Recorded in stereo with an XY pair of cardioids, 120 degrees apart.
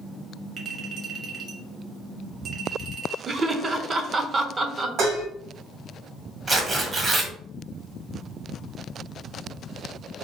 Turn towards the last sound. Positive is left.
turn(degrees=-30)